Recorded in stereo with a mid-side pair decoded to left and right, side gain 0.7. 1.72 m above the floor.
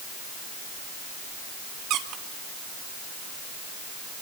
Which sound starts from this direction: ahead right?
A squeak, at 1.9 s.